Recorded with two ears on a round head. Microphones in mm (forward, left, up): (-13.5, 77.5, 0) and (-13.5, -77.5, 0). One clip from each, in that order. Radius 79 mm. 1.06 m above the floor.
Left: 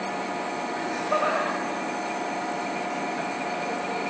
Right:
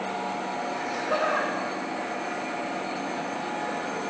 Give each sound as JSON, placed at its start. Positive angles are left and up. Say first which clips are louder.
{"t": 0.8, "sound": "laughter", "louder": "left 2 dB", "side_deg": -75, "distance_m": 2.5}